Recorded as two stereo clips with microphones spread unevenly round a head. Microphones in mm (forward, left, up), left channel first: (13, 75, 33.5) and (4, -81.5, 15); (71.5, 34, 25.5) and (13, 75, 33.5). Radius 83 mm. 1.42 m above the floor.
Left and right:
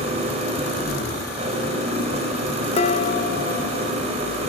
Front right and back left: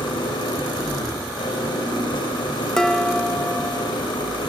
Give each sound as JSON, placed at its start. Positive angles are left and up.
{"t": 0.0, "sound": "an engine running", "azimuth_deg": -40, "distance_m": 4.5}
{"t": 2.8, "sound": "dishes clattering", "azimuth_deg": 50, "distance_m": 0.8}